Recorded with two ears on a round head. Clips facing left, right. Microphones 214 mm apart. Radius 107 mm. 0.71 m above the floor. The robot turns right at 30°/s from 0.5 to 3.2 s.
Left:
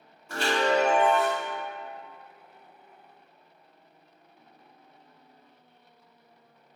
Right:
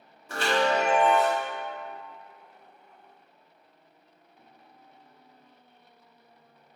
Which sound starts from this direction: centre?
A chime, at 0.3 s.